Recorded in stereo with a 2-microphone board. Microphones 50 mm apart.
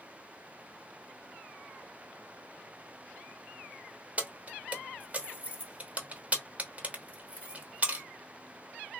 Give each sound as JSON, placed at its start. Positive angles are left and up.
{"t": 4.2, "sound": "keys jangling", "side_deg": -30, "distance_m": 0.8}